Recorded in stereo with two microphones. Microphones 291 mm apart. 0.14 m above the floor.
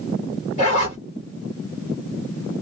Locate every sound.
0.6 s a zipper: 25° left (ahead or behind), 2.5 m